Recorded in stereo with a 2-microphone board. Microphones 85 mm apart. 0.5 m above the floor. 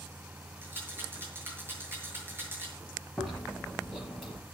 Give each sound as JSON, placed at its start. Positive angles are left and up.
{"t": 0.6, "sound": "a rattle", "side_deg": -25, "distance_m": 7.5}
{"t": 3.2, "sound": "chewing", "side_deg": 5, "distance_m": 8.5}